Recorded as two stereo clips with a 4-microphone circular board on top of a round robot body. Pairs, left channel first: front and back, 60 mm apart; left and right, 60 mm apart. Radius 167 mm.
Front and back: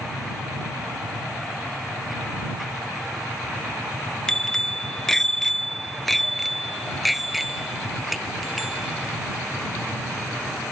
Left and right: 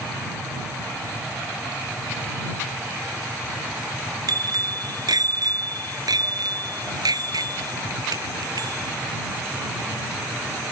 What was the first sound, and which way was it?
A bicycle bell, 80° right.